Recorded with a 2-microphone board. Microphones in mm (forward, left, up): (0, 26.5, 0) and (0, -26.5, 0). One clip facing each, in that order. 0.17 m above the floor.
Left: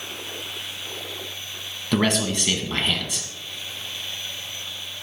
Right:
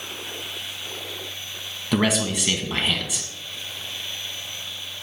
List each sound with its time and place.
1.9 s a man speaking: 5° right (ahead or behind), 1.4 m